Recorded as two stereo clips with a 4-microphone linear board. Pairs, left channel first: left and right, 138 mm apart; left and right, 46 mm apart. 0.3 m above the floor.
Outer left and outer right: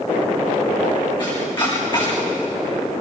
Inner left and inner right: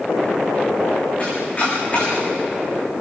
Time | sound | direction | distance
1.2 | chopping | 30° left (ahead or behind) | 8.5 m